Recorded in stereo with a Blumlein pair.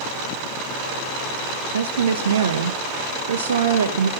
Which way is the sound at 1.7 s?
65° right.